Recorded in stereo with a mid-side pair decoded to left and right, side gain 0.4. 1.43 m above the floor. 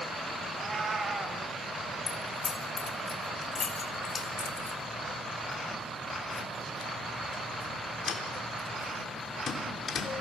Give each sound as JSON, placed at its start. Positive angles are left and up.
{"t": 0.5, "sound": "a cat meowing", "azimuth_deg": -35, "distance_m": 3.0}
{"t": 2.1, "sound": "keys jangling", "azimuth_deg": 55, "distance_m": 3.5}